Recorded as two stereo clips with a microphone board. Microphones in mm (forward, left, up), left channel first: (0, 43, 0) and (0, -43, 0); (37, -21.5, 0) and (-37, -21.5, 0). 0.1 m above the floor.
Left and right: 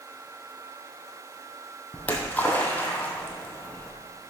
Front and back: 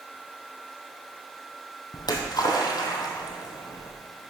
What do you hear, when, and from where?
1.9 s a splash: 20° left, 1.5 m